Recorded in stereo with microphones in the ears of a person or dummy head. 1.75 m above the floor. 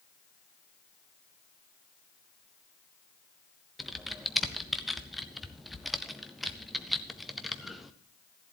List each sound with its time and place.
3.8 s typing on a keyboard: 5° left (ahead or behind), 0.6 m